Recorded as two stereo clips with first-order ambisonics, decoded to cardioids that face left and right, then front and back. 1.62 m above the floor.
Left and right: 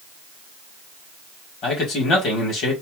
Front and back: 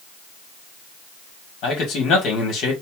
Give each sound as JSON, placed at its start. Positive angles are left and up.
{"t": 1.6, "sound": "a man speaking", "azimuth_deg": 40, "distance_m": 1.6}